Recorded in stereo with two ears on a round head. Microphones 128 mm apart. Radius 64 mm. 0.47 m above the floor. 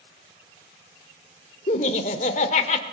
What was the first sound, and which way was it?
Laughter, 50° left (ahead or behind).